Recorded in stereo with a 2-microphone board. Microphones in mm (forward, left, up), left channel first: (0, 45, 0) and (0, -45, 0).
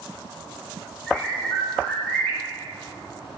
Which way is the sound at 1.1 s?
15° left (ahead or behind).